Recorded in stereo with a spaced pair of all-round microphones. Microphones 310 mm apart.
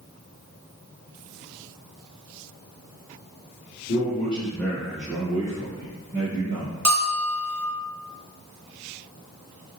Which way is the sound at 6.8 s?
65° right (ahead or behind).